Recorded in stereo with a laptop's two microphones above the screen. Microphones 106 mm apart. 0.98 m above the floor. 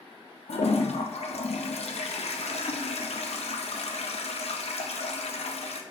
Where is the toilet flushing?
80° left, 0.5 m.